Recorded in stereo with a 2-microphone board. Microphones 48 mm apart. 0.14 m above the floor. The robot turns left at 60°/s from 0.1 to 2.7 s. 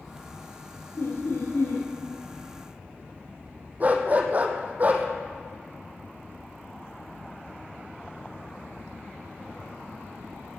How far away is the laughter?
About 4 m.